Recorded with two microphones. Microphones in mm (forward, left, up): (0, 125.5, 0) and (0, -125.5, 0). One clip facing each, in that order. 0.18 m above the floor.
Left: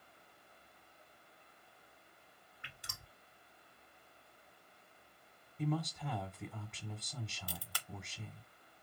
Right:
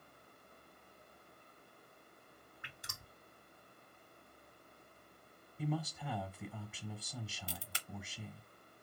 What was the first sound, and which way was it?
Dripping, 50° right (ahead or behind).